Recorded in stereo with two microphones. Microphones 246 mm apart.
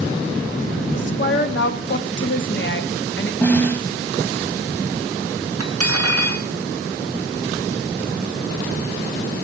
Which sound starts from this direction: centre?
A snare drum, at 3.4 s.